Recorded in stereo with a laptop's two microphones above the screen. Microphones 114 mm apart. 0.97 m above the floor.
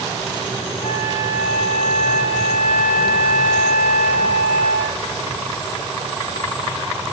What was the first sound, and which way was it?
A flute, 85° left.